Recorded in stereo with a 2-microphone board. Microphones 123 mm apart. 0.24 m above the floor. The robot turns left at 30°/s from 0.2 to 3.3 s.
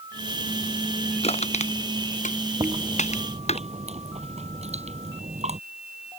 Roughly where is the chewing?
Right.